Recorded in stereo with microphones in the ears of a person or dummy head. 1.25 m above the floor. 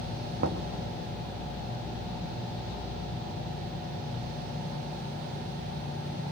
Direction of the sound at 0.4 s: 55° right (ahead or behind).